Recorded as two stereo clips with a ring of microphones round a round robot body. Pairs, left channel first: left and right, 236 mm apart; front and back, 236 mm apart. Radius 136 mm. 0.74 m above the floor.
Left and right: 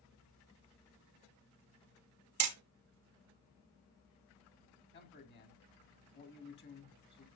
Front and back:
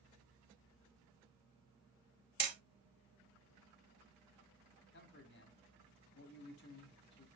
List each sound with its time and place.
2.4 s hammering: 120° right, 1.2 m
4.9 s a man speaking: 45° left, 2.5 m